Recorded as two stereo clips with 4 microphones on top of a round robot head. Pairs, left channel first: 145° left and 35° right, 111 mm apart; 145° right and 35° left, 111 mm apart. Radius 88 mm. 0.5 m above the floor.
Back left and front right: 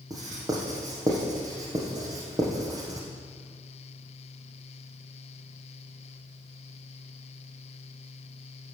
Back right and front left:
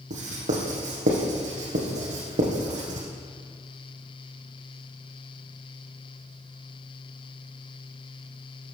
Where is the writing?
25° left, 4.5 m.